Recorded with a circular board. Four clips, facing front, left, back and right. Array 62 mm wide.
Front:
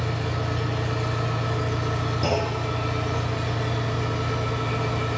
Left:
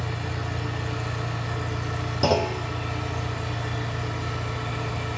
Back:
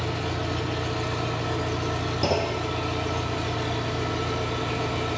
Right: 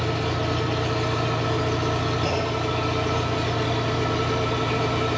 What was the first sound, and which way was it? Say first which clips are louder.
An engine running: right 7 dB, even; 105° right.